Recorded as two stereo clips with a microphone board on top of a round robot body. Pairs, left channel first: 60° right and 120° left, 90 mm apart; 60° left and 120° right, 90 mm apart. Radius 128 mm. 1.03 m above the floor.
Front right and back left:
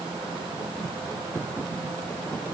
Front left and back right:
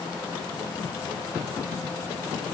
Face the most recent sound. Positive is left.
No sound to turn to.